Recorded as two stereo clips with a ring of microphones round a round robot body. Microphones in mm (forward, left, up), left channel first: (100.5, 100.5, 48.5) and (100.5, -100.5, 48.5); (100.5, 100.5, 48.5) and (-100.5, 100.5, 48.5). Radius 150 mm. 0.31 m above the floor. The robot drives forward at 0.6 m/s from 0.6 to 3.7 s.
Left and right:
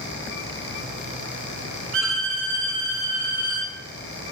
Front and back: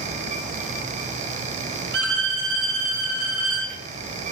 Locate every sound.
1.9 s a violin: 130° right, 1.8 m; by 3.7 s 150° right, 2.5 m